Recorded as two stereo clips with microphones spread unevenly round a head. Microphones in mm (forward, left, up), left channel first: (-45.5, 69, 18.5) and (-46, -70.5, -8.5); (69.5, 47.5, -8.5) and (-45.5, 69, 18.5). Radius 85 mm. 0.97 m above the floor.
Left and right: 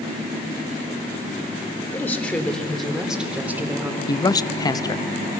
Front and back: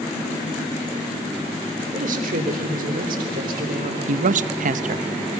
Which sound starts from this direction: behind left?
A man speaking, at 4.1 s.